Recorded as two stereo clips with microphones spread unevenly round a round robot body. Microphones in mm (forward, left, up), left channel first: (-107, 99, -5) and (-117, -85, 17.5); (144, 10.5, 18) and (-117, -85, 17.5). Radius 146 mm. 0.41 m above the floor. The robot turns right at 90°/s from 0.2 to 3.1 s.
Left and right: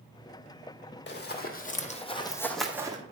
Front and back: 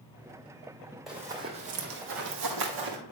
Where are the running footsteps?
110° left, 1.1 m; by 3.0 s 160° right, 1.5 m.